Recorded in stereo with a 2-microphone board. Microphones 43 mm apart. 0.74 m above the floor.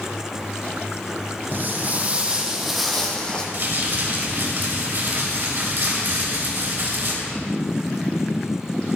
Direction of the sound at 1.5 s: 50° right (ahead or behind).